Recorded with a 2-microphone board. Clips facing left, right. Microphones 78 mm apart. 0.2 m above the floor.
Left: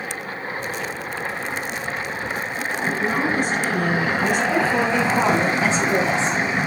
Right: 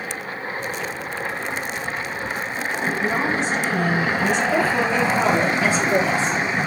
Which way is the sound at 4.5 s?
25° left (ahead or behind).